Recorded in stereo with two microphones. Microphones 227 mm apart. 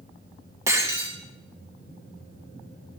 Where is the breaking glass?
10° right (ahead or behind), 1.6 m.